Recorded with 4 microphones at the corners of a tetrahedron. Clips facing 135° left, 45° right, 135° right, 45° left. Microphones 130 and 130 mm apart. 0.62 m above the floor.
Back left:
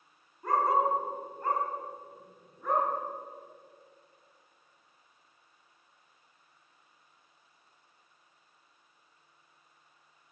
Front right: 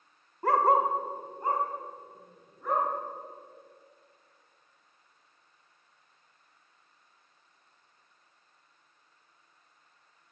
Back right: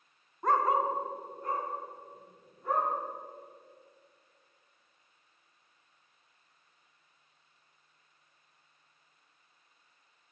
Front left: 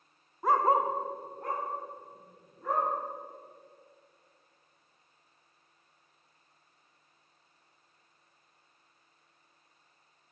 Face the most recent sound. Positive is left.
turn(degrees=40)